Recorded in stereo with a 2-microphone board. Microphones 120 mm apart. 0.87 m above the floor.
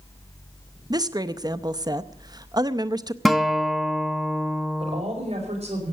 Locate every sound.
0.9 s a woman speaking: 35° right (ahead or behind), 0.6 m
3.2 s a guitar: centre (ahead or behind), 1.0 m
4.8 s a woman speaking: 60° right (ahead or behind), 5 m